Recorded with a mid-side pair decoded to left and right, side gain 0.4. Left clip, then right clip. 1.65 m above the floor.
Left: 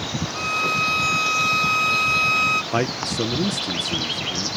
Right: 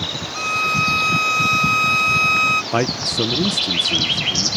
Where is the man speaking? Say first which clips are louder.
Right 3 dB; 20° right.